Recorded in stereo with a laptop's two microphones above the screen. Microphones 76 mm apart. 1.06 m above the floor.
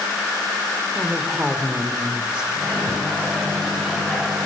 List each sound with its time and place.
0.9 s a woman speaking: 10° right (ahead or behind), 4.5 m
2.5 s a microwave: 5° right (ahead or behind), 6.5 m